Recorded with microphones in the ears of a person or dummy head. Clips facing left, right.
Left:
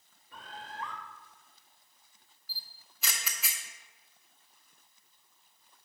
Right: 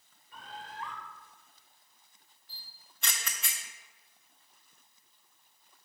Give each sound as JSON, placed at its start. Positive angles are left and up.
{"t": 0.3, "sound": "a bird", "side_deg": 45, "distance_m": 1.0}
{"t": 2.5, "sound": "a camera shutter", "side_deg": 0, "distance_m": 0.7}